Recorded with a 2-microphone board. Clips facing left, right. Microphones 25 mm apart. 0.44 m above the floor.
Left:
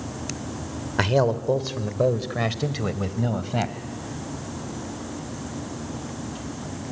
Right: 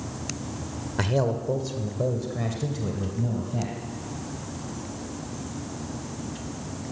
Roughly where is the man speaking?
Left.